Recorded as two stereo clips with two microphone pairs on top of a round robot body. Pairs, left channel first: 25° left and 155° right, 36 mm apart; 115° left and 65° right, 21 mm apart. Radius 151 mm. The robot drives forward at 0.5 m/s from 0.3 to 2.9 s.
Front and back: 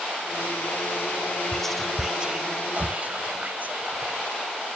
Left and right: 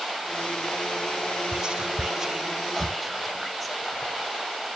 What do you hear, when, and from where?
1.5 s whispering: 40° right, 0.7 m; by 4.3 s 160° right, 0.8 m